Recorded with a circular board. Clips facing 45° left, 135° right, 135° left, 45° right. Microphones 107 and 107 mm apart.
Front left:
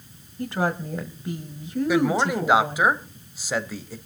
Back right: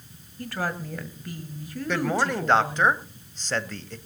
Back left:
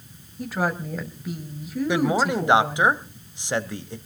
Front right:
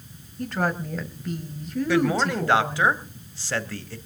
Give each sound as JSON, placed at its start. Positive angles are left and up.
{"t": 0.4, "sound": "a woman speaking", "azimuth_deg": 65, "distance_m": 1.6}
{"t": 1.9, "sound": "a man speaking", "azimuth_deg": 110, "distance_m": 1.1}